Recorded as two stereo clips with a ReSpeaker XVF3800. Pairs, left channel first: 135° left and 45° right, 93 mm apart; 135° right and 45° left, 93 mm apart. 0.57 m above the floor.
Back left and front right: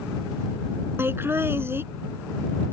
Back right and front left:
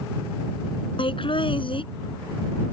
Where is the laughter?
110° right.